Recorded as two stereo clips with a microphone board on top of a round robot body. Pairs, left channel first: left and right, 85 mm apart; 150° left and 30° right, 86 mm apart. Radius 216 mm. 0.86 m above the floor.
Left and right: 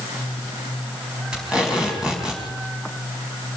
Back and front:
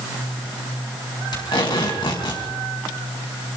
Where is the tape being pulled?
170° right, 5 m.